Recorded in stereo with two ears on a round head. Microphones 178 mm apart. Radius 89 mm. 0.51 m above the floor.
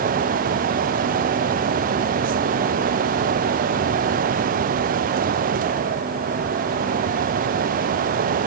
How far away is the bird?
No bird in this recording.